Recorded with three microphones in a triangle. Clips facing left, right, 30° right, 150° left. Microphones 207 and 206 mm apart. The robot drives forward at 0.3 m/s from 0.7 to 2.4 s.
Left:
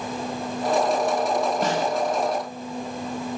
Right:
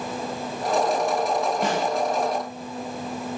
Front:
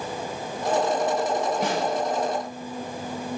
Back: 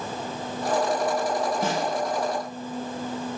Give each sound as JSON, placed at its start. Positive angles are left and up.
{"t": 1.6, "sound": "a snare drum", "azimuth_deg": 45, "distance_m": 4.0}